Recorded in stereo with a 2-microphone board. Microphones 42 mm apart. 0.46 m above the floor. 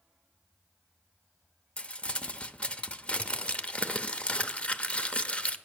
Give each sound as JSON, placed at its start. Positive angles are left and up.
{"t": 1.8, "sound": "crumpling", "side_deg": 30, "distance_m": 0.6}